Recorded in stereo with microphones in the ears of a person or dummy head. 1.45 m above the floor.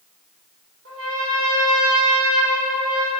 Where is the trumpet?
60° right (ahead or behind), 5.5 m.